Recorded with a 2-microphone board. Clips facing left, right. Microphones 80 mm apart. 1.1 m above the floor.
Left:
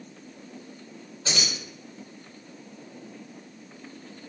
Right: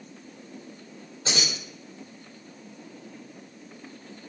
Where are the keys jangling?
35° right (ahead or behind), 1.8 m.